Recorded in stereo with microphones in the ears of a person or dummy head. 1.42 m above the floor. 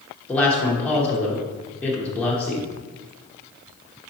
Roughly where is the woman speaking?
Centre.